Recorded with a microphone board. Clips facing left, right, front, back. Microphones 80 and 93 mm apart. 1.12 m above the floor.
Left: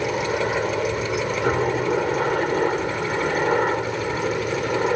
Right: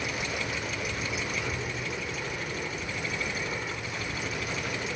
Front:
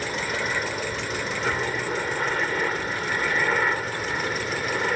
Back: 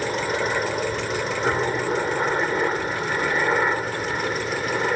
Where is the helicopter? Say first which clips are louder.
Left 11 dB, back 4 dB; 115° left; by 5.0 s 100° left.